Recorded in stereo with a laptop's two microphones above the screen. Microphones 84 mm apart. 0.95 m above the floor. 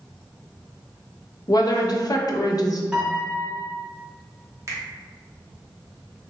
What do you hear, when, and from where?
1.5 s a woman speaking: 50° left (ahead or behind), 0.6 m
2.9 s a piano: 10° right (ahead or behind), 0.8 m
4.7 s a finger snap: 40° right (ahead or behind), 0.9 m